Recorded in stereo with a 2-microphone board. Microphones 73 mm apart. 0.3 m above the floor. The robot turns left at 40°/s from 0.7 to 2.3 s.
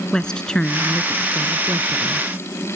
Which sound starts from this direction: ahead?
A woman speaking, at 0.1 s.